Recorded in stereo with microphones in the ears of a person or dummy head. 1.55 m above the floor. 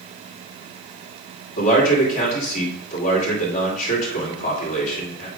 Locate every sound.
1.6 s a man speaking: 45° left (ahead or behind), 3 m